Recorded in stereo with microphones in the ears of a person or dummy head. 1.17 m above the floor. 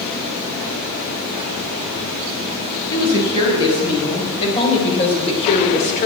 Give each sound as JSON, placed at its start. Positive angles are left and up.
{"t": 2.9, "sound": "a woman speaking", "side_deg": 20, "distance_m": 7.0}